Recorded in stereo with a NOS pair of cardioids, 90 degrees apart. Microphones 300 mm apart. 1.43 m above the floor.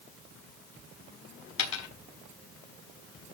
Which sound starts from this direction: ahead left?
A dropped coin, at 1.6 s.